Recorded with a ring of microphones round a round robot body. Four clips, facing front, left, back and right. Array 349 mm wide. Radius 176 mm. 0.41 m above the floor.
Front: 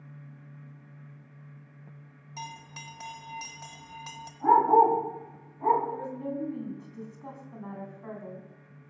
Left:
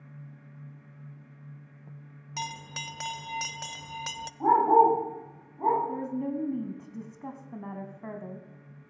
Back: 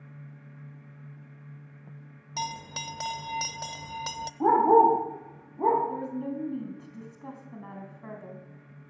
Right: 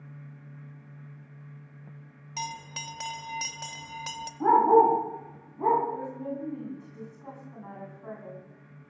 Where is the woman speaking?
100° left, 3.5 m.